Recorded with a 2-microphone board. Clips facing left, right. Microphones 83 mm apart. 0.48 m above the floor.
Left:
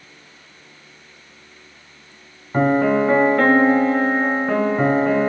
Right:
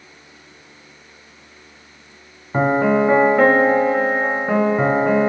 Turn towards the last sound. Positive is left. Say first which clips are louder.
# even
turn(degrees=-10)  # may be behind; listen again after turning